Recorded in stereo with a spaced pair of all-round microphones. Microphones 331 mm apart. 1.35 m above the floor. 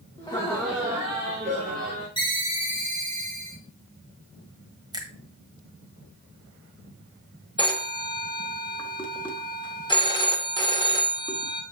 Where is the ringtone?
15° left (ahead or behind), 2.5 m.